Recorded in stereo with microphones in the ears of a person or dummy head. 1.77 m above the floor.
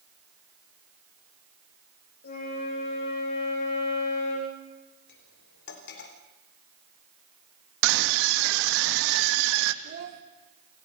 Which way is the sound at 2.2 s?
50° left (ahead or behind).